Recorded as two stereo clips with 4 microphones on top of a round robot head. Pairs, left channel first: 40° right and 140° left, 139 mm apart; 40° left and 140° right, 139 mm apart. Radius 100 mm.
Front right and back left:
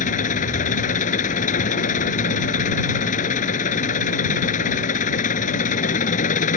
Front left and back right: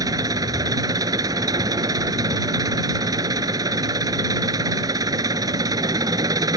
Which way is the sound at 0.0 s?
75° right.